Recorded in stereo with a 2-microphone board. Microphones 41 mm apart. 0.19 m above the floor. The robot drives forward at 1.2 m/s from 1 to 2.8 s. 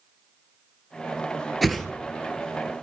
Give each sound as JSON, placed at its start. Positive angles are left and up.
{"t": 1.6, "sound": "a whoosh", "side_deg": 0, "distance_m": 0.6}